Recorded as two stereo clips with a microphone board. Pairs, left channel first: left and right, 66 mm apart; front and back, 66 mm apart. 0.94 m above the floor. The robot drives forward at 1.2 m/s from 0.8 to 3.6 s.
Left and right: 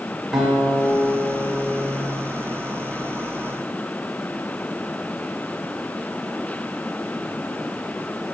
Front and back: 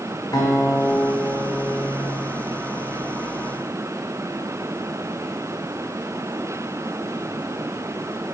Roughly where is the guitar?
Ahead.